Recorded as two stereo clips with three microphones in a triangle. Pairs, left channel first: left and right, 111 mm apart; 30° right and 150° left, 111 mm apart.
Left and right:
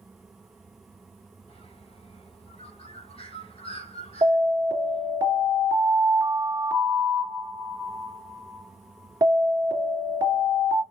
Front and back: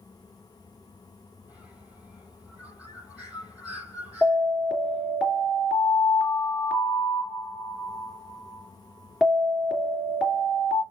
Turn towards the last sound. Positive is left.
turn(degrees=-125)